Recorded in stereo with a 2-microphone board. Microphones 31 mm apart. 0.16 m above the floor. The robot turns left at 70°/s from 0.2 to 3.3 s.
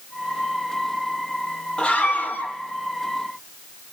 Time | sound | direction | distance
1.8 | a scream | 150° left | 4 m